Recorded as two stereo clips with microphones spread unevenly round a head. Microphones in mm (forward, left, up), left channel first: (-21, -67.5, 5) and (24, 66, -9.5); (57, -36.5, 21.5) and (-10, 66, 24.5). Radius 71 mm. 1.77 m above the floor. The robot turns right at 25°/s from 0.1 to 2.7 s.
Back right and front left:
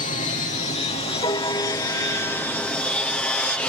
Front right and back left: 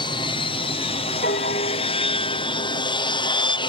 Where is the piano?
55° right; by 3.2 s 15° right.